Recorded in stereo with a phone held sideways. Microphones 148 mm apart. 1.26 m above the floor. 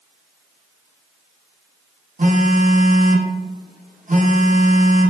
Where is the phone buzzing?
55° right (ahead or behind), 0.5 m.